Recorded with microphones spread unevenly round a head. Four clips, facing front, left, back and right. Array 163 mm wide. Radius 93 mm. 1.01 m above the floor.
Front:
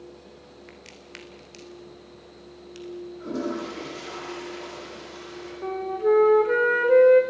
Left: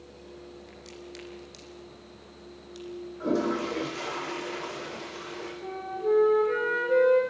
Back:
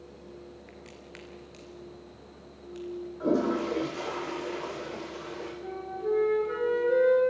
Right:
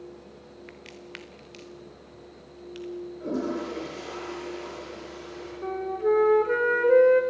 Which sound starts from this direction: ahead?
A flute, at 5.6 s.